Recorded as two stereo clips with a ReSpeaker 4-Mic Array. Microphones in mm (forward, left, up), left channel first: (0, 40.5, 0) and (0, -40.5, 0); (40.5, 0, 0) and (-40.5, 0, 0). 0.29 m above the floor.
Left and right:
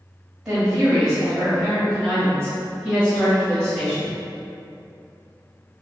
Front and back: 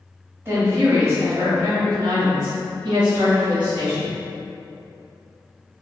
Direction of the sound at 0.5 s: 160° right.